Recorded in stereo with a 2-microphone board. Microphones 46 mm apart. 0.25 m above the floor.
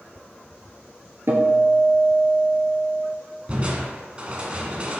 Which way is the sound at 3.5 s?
30° right (ahead or behind).